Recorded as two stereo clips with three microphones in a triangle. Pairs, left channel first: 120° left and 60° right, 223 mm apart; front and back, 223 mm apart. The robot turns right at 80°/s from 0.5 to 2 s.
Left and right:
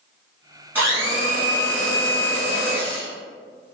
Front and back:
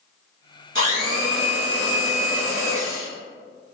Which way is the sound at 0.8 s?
140° right.